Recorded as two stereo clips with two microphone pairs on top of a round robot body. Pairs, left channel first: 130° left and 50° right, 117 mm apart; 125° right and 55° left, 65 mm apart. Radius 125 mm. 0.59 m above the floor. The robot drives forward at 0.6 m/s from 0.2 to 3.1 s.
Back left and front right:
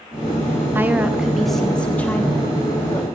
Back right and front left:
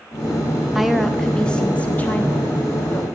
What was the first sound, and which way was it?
A woman speaking, 75° right.